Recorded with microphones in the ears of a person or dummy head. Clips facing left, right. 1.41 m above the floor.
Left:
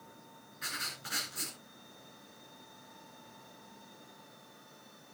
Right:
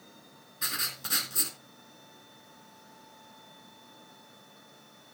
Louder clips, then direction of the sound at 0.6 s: Right 4 dB; 70° right (ahead or behind).